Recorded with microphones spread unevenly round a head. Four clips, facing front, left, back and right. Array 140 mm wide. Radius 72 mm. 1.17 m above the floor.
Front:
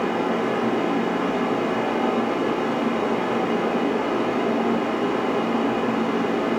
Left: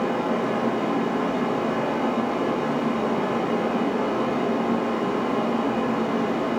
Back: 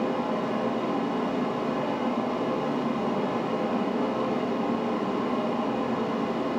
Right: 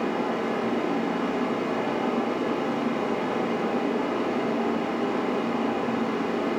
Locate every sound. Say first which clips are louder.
0.0 s a fan: left 3 dB, front 5 dB; 5° left, 6.5 m